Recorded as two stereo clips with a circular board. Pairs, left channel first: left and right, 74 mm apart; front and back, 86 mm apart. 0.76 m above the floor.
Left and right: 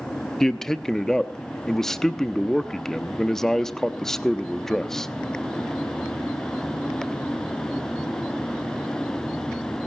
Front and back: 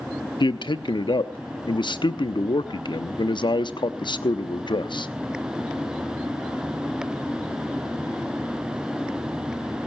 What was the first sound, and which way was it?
A man speaking, 5° left.